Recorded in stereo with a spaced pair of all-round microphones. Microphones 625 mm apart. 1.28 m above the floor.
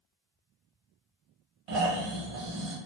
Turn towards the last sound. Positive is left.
turn(degrees=-60)  # may be behind; listen again after turning